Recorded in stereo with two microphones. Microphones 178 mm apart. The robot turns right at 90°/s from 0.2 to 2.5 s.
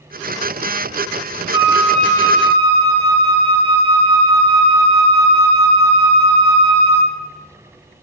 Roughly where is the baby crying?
No baby crying in this recording.